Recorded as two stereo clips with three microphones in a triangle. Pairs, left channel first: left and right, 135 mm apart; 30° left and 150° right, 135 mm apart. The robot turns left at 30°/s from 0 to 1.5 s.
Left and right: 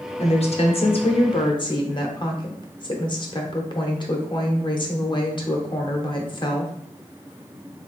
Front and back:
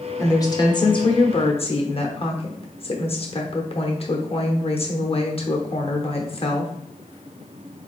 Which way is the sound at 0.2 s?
90° left.